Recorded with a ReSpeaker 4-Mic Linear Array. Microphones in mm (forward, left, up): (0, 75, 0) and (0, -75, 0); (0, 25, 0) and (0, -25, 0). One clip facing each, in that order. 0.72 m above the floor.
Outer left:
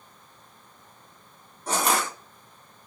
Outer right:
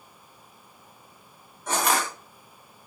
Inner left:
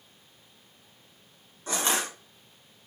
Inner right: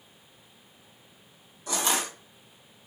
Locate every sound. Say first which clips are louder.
1.7 s crushing: even, even; 35° left (ahead or behind), 1.7 m